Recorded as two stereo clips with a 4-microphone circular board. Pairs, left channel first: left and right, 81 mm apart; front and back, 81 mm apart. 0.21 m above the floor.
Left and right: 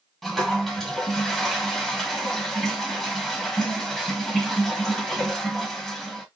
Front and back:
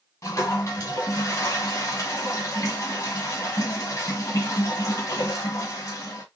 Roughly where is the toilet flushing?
Ahead.